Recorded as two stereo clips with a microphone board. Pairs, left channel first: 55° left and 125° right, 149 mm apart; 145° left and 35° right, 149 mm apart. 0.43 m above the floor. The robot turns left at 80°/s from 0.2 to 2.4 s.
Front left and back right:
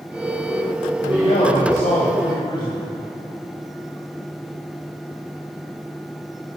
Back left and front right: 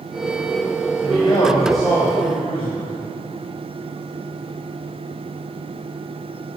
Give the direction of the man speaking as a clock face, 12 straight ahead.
8 o'clock.